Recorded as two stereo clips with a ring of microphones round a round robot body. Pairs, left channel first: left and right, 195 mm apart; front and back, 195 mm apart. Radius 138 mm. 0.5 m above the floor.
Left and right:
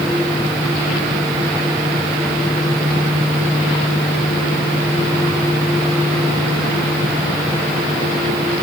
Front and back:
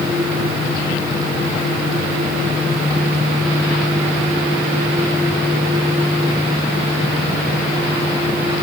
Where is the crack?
No crack in this recording.